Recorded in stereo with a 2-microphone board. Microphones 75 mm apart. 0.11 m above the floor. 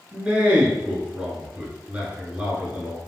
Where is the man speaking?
20° right (ahead or behind), 1.1 m.